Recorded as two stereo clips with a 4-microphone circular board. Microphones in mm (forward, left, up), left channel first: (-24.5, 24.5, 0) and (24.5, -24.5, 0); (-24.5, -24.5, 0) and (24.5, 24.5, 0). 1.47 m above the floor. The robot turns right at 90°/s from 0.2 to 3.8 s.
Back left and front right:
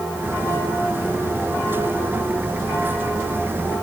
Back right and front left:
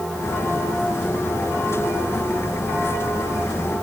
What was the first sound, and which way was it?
Only background noise.